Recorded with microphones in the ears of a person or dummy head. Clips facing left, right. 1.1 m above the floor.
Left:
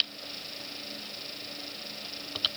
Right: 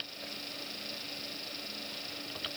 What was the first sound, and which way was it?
Only background noise.